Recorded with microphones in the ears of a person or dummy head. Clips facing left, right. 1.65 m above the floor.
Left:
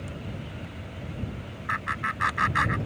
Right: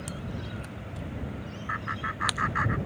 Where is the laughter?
50° left (ahead or behind).